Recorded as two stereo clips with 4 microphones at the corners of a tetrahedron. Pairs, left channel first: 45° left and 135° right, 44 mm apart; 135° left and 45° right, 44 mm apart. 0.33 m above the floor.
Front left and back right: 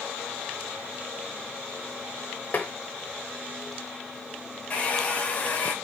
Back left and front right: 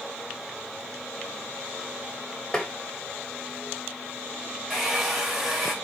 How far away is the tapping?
About 0.7 m.